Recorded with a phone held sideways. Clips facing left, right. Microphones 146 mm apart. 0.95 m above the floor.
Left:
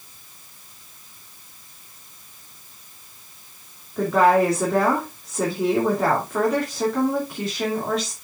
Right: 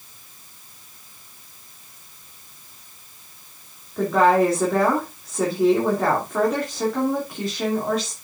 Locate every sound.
4.0 s a woman speaking: centre (ahead or behind), 2.5 m